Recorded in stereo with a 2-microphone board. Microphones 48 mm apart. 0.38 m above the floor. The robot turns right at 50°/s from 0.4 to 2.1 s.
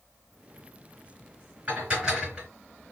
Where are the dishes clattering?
35° right (ahead or behind), 3 m; by 2.5 s 10° right (ahead or behind), 3 m.